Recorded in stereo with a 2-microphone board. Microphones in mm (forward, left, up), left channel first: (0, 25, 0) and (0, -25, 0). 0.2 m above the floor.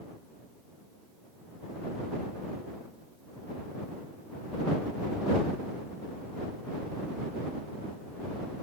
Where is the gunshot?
I don't hear a gunshot.